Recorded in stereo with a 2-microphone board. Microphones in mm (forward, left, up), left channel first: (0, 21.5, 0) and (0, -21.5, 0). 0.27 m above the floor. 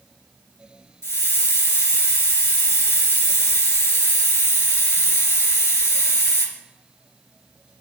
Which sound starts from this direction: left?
A hiss, at 1.0 s.